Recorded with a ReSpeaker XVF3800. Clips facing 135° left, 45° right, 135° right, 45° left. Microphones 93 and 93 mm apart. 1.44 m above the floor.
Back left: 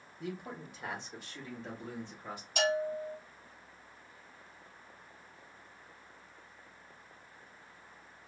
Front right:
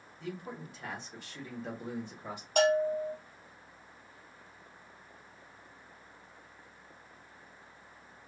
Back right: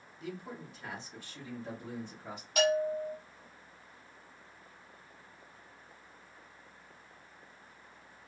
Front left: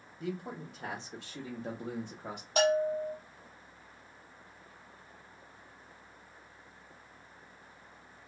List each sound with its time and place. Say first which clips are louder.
0.2 s a man speaking: even, front left 4 dB; 80° left, 1.0 m; by 2.5 s 15° left, 1.2 m
2.6 s a bell: front right 5 dB, front left 1 dB; 10° right, 0.8 m